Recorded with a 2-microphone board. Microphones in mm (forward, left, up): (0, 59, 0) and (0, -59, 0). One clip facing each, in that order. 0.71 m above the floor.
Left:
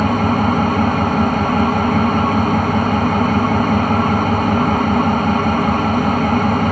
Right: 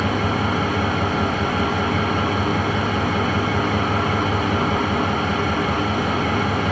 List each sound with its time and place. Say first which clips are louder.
0.0 s an engine running: left 6 dB; 50° left (ahead or behind), 2 m